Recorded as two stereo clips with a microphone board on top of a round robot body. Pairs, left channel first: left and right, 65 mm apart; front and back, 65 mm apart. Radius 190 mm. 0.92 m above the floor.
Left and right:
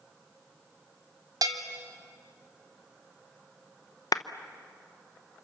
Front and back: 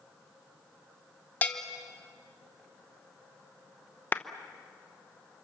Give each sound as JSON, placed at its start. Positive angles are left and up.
{"t": 1.4, "sound": "a bell", "azimuth_deg": -65, "distance_m": 1.0}
{"t": 4.1, "sound": "a clap", "azimuth_deg": 60, "distance_m": 0.9}